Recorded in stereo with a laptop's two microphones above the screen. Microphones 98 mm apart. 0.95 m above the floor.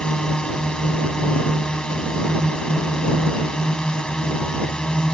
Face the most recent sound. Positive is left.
turn(degrees=10)  # may be behind; listen again after turning